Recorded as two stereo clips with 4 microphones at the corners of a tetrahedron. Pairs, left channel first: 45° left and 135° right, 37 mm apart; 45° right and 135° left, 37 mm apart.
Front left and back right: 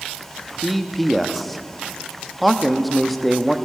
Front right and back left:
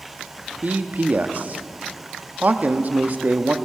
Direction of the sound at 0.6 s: 130° left.